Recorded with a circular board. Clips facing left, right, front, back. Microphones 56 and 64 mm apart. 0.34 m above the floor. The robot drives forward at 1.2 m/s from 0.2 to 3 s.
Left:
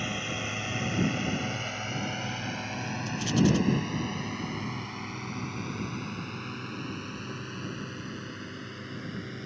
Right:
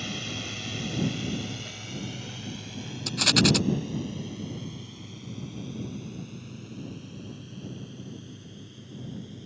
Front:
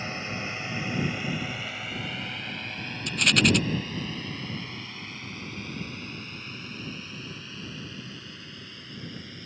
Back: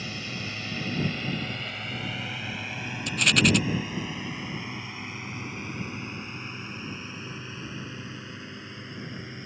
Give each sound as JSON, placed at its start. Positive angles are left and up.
{"t": 0.0, "sound": "a drone", "azimuth_deg": 40}
{"t": 3.1, "sound": "a rattle", "azimuth_deg": -90}